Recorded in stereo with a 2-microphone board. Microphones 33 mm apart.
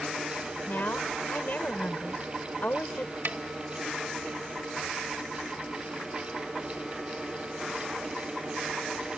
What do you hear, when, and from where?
0.7 s a woman speaking: 60° left (ahead or behind)
3.2 s a snare drum: 70° right (ahead or behind)